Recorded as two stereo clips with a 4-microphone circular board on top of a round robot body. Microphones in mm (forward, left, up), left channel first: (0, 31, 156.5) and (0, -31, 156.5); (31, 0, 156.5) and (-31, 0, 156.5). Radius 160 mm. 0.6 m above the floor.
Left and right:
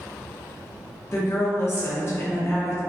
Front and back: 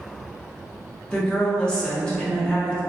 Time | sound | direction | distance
1.1 | a woman speaking | 70° left | 0.6 m